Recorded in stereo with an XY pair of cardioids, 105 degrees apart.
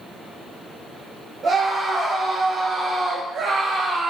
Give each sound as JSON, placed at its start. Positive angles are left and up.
{"t": 1.4, "sound": "a scream", "azimuth_deg": -50, "distance_m": 4.0}